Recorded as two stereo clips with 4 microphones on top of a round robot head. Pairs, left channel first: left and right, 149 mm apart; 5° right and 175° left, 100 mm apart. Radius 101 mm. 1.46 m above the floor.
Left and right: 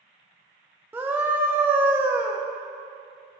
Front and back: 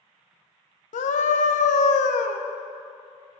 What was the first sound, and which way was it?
A scream, 10° right.